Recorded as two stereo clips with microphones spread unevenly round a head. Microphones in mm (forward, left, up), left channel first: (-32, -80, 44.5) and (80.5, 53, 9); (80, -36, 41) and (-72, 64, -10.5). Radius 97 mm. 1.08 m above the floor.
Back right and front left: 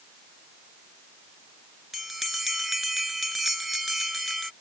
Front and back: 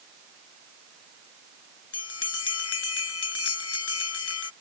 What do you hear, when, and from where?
1.9 s a bell: 40° right